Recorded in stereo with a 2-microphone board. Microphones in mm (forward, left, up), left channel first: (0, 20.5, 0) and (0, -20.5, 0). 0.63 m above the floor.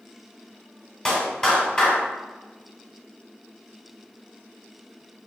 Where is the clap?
25° left (ahead or behind), 3 m.